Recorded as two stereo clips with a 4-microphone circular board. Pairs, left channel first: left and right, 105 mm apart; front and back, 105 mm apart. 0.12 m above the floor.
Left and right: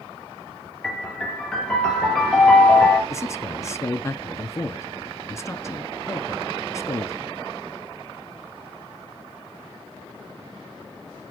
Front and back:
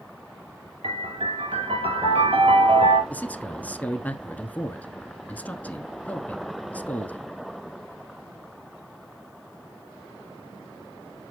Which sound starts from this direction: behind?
A piano, at 0.8 s.